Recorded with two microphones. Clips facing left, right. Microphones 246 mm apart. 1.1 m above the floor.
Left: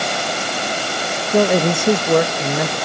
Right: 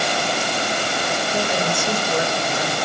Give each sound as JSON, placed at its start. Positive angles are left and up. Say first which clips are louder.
{"t": 1.3, "sound": "a man speaking", "louder": "left 11 dB", "side_deg": 60, "distance_m": 1.4}